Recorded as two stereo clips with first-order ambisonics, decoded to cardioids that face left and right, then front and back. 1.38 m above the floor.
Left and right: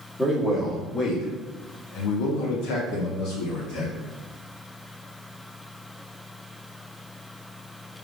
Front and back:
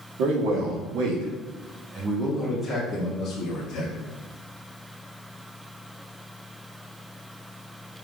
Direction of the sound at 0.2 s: 165° left.